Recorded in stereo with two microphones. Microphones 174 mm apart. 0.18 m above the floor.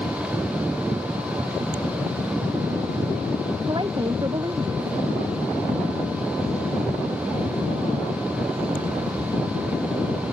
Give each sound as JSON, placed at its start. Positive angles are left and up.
{"t": 3.6, "sound": "a woman speaking", "side_deg": -25}